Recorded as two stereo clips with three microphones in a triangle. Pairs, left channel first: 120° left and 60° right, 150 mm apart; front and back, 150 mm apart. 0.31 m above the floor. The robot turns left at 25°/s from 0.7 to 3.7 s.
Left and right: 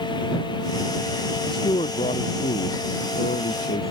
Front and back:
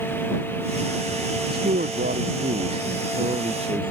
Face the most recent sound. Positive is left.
turn(degrees=125)